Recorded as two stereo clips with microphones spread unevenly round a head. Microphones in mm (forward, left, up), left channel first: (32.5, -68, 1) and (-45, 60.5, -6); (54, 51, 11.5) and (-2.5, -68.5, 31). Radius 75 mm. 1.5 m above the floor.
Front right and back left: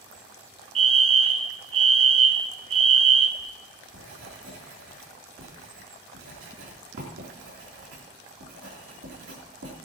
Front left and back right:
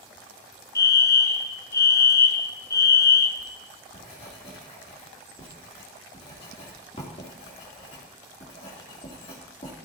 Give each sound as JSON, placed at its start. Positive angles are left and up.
{"t": 0.8, "sound": "a fire alarm", "azimuth_deg": 105, "distance_m": 0.8}
{"t": 3.4, "sound": "writing", "azimuth_deg": 120, "distance_m": 3.5}